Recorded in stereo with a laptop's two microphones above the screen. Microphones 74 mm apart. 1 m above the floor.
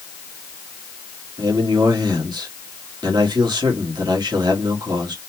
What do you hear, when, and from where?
1.4 s a man speaking: 75° right (ahead or behind), 1.5 m